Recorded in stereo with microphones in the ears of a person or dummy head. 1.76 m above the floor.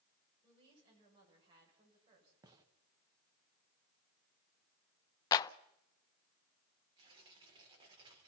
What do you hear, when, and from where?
0.4 s a woman speaking: 25° right (ahead or behind), 7.5 m
2.4 s a gunshot: 20° right (ahead or behind), 1.8 m
5.3 s a clap: 25° left (ahead or behind), 0.5 m
7.0 s tearing paper: 25° right (ahead or behind), 4.5 m